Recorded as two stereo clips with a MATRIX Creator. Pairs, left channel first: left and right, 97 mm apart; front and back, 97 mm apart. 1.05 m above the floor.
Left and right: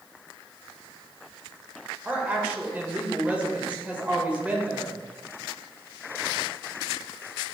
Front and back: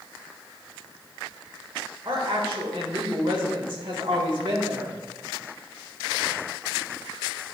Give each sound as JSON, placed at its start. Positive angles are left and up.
{"t": 2.0, "sound": "a woman speaking", "azimuth_deg": -165, "distance_m": 1.5}